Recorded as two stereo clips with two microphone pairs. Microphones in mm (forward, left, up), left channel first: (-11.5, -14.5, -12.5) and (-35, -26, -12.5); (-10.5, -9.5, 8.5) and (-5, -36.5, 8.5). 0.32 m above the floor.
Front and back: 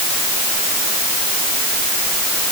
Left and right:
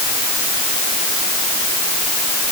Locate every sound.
Only background noise.